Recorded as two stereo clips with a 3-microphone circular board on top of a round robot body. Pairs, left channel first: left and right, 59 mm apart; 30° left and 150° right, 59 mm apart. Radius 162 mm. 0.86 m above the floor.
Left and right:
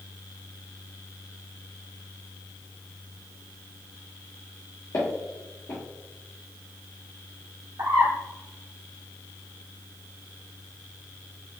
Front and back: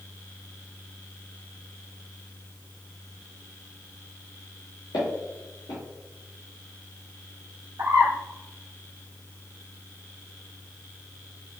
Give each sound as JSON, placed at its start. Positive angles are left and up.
{"t": 4.9, "sound": "footsteps", "azimuth_deg": 40, "distance_m": 1.3}
{"t": 7.8, "sound": "a bird", "azimuth_deg": -110, "distance_m": 1.3}